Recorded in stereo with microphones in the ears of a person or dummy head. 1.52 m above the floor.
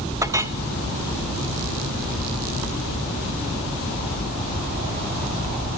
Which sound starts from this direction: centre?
A clink, at 0.2 s.